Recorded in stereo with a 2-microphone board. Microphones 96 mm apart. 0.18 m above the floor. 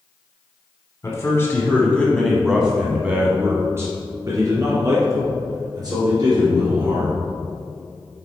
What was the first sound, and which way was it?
A man speaking, 35° left (ahead or behind).